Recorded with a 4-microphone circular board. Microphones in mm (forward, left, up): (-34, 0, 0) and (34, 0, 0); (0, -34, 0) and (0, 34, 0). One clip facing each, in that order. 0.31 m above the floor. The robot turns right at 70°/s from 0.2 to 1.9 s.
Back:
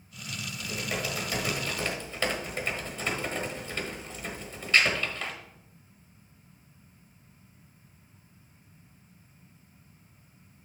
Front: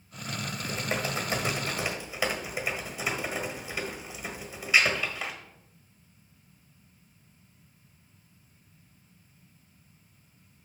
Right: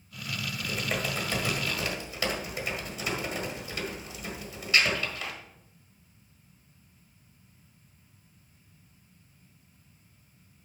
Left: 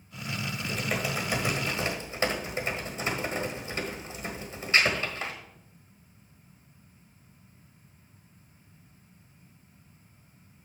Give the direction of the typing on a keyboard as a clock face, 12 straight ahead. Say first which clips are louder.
Front 1 dB, even; 1 o'clock.